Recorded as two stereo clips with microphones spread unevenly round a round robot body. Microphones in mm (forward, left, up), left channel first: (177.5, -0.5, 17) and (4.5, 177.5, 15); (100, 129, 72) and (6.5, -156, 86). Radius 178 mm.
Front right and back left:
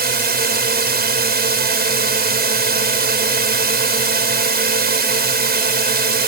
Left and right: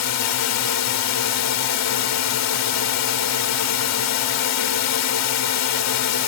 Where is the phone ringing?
No phone ringing in this recording.